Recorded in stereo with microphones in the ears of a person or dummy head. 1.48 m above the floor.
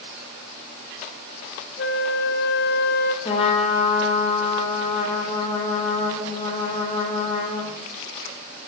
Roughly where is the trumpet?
Left.